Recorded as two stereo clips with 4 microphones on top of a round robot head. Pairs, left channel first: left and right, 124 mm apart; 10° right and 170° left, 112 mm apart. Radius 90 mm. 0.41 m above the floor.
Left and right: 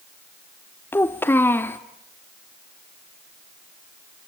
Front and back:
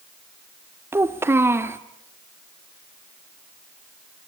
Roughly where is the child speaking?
Behind left.